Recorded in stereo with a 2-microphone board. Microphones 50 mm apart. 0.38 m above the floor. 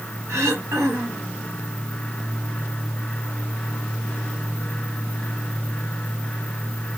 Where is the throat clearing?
75° right (ahead or behind), 3 m.